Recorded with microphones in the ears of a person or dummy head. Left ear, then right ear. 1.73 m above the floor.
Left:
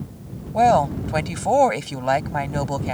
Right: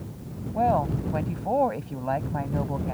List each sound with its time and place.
0.5 s a woman speaking: 75° left (ahead or behind)